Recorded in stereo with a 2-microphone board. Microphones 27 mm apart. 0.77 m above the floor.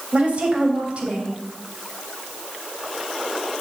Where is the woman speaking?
50° right (ahead or behind), 3.5 m.